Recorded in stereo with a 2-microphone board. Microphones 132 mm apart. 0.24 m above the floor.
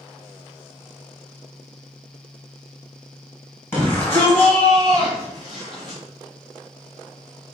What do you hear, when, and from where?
3.7 s a shout: 20° left (ahead or behind), 1.2 m; by 6.0 s centre (ahead or behind), 2.0 m